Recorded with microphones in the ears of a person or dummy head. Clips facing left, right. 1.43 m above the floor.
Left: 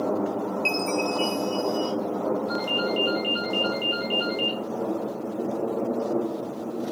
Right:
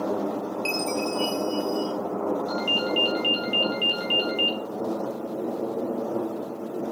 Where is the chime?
Centre (ahead or behind), 1.2 m.